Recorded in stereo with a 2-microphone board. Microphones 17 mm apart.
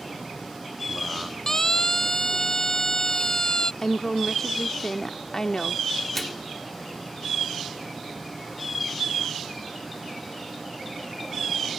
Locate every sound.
1.5 s a siren: 25° left (ahead or behind); by 3.7 s 35° left (ahead or behind)
3.8 s a woman speaking: 30° left (ahead or behind)
6.2 s a microwave: 10° left (ahead or behind)